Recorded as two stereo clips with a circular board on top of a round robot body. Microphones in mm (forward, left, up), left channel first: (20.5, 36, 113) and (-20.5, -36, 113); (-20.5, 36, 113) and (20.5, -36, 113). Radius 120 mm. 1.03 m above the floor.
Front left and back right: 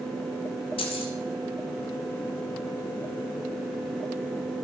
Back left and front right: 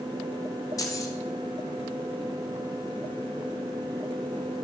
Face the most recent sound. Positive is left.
turn(degrees=65)